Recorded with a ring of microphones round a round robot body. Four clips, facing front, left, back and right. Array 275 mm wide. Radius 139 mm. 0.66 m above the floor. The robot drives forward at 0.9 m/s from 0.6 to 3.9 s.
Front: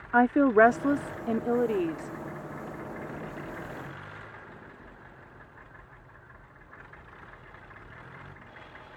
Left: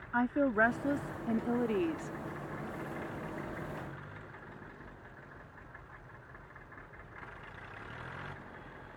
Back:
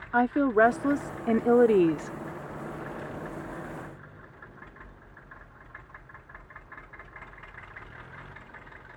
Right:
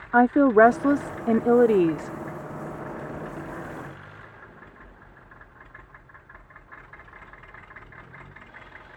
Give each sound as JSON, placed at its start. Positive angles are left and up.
{"t": 0.1, "sound": "a woman speaking", "azimuth_deg": -80}